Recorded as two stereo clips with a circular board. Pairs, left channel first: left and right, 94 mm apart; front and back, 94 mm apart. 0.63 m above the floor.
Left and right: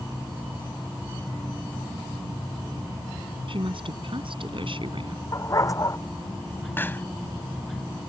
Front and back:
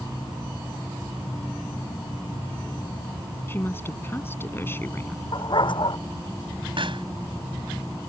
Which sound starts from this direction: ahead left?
A dog barking, at 5.3 s.